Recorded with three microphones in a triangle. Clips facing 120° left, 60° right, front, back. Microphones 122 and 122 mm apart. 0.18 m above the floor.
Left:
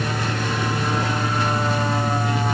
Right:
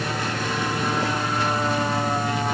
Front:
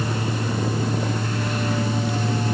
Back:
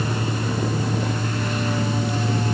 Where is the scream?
No scream in this recording.